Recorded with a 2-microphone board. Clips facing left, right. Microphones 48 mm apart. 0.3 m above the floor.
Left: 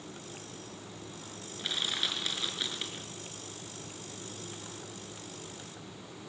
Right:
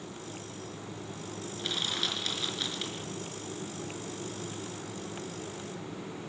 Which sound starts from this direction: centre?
Crushing, at 1.6 s.